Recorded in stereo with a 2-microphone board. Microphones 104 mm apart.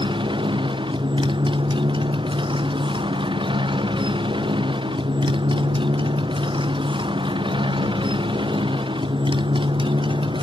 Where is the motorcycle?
50° right (ahead or behind).